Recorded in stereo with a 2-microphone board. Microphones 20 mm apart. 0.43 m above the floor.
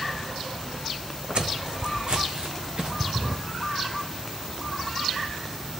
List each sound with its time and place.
1.4 s footsteps: 50° right (ahead or behind), 1.1 m
3.1 s a drawer: 25° right (ahead or behind), 0.7 m